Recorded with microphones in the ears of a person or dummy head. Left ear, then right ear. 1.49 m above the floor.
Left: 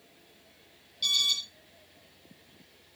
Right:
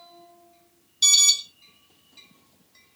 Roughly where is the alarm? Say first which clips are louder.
Right 8 dB; right.